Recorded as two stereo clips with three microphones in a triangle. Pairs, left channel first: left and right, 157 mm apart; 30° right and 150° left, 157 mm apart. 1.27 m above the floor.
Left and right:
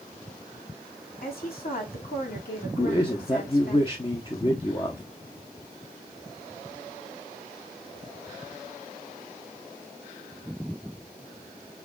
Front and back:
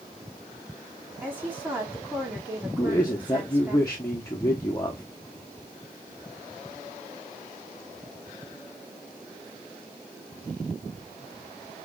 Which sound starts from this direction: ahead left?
A man speaking, at 2.8 s.